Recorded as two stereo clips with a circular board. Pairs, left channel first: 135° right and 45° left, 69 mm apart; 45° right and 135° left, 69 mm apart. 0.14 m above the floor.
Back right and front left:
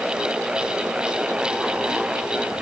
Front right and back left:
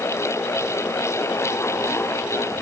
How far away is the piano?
I don't hear a piano.